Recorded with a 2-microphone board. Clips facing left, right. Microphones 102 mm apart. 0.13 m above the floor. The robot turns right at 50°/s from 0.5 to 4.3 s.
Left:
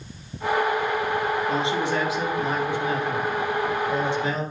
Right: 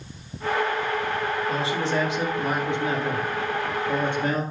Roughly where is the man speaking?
Behind left.